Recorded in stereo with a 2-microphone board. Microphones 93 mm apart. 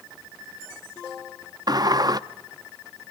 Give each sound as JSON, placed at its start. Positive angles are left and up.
{"t": 1.7, "sound": "a sliding door", "side_deg": -45, "distance_m": 0.6}